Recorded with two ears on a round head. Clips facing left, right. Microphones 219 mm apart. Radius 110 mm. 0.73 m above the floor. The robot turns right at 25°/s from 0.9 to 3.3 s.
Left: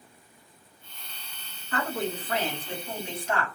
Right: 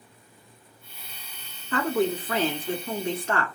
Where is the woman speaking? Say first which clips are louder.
Right 6 dB; 85° right, 1.3 m; by 3.5 s 45° right, 1.3 m.